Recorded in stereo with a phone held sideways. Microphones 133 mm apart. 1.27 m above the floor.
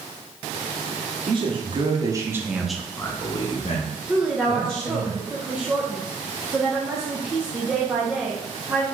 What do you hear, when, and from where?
1.3 s a man speaking: 40° right (ahead or behind), 1.0 m; by 5.1 s 65° left (ahead or behind), 1.2 m
4.1 s a woman speaking: 5° right (ahead or behind), 0.5 m